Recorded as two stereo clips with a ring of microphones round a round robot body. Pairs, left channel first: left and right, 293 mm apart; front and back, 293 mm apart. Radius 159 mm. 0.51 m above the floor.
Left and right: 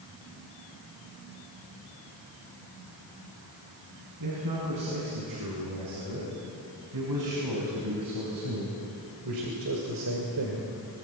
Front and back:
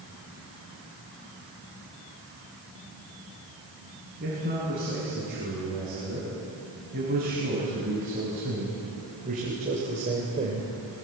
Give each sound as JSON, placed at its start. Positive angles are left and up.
{"t": 4.2, "sound": "a man speaking", "azimuth_deg": -115, "distance_m": 6.5}